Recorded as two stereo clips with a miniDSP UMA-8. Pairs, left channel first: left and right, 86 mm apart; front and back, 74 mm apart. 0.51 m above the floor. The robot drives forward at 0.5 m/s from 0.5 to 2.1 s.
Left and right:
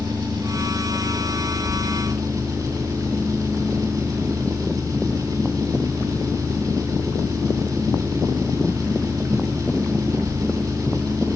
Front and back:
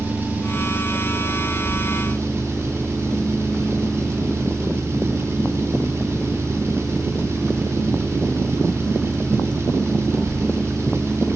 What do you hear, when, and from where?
0.0 s an engine running: 120° right, 3 m; by 11.4 s 130° right, 3.5 m